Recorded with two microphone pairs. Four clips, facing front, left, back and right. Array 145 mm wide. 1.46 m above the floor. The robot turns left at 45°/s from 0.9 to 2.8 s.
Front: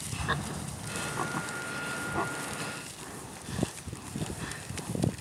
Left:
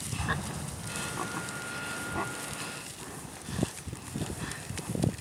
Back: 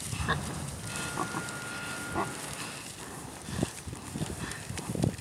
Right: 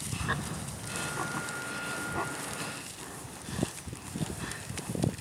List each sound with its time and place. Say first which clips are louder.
0.2 s an explosion: left 1 dB, even; 50° left, 8 m; by 1.2 s 40° left, 8 m